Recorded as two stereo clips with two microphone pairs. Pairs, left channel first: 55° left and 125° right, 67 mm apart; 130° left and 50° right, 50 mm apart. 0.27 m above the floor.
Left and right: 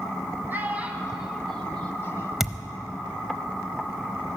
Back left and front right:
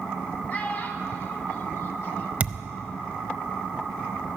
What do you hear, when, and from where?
0.5 s a child speaking: straight behind, 1.6 m; by 2.3 s 90° left, 1.3 m
2.4 s a thud: 40° right, 0.5 m